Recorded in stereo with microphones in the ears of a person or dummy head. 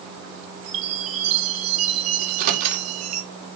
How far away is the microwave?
About 2.5 m.